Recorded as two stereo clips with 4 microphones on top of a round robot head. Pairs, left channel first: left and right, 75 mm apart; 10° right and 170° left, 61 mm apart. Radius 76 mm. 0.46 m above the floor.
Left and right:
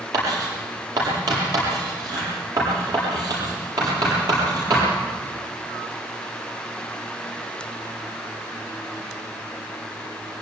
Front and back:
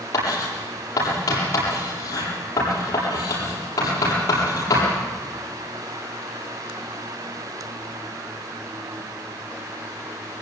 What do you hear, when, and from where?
0.1 s writing: 50° right, 8 m